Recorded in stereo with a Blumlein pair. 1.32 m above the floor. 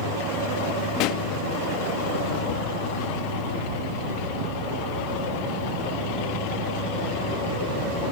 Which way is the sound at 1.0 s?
40° left.